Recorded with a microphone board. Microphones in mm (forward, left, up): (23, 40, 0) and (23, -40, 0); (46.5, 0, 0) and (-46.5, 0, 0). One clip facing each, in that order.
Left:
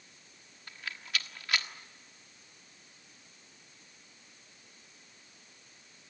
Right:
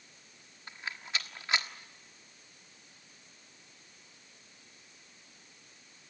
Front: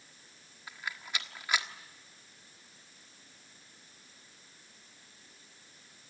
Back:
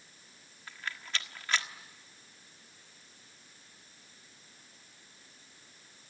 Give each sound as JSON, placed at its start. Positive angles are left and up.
{"t": 0.7, "sound": "a rattle", "azimuth_deg": -60, "distance_m": 1.3}